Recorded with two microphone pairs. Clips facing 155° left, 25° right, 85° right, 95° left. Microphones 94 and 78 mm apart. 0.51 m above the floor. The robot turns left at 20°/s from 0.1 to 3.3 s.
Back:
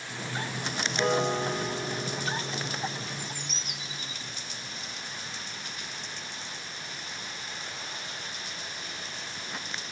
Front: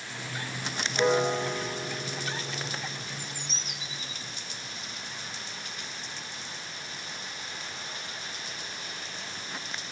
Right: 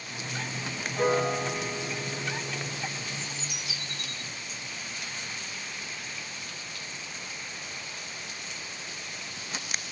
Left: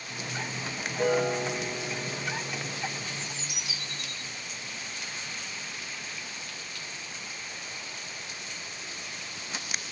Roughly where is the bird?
Right.